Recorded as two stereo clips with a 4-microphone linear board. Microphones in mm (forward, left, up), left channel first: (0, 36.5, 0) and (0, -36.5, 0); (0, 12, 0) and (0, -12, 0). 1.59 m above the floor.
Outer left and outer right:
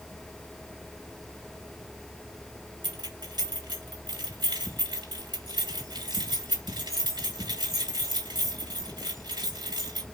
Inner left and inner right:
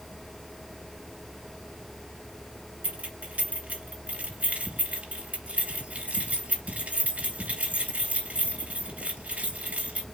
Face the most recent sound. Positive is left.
turn(degrees=-80)